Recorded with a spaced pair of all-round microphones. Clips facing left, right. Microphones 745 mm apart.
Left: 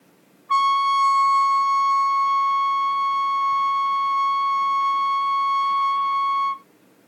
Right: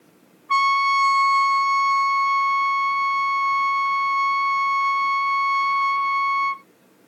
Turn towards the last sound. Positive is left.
turn(degrees=-25)  # may be behind; listen again after turning